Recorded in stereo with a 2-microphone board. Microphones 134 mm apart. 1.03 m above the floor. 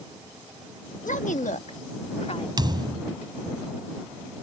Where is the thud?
30° right (ahead or behind).